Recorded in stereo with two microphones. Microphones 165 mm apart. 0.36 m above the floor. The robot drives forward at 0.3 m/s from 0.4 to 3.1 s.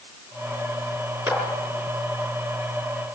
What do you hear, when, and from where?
1.3 s a clap: 20° right (ahead or behind), 6 m